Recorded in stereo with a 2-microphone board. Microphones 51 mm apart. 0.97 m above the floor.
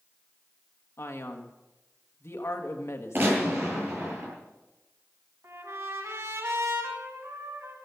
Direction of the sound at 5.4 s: 65° right (ahead or behind).